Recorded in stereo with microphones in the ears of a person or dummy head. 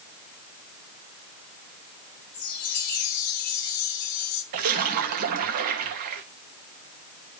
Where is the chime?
55° left (ahead or behind), 2.5 m.